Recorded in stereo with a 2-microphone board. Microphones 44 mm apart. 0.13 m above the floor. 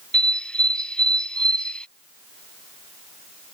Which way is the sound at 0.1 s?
25° left (ahead or behind).